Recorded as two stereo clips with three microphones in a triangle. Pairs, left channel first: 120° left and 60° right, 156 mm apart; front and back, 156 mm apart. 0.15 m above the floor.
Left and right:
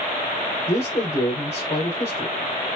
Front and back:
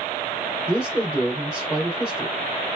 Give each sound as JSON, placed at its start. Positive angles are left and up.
{"t": 0.7, "sound": "a man speaking", "azimuth_deg": 85, "distance_m": 2.5}